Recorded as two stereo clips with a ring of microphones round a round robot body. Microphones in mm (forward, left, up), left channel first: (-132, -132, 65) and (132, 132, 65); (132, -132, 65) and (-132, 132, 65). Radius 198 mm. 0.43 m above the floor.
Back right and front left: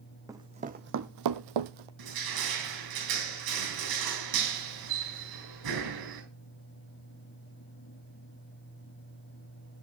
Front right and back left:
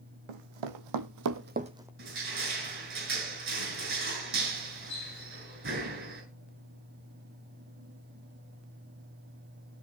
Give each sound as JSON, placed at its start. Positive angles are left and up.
{"t": 0.3, "sound": "running footsteps", "azimuth_deg": 125, "distance_m": 1.3}
{"t": 2.0, "sound": "crushing", "azimuth_deg": 75, "distance_m": 7.0}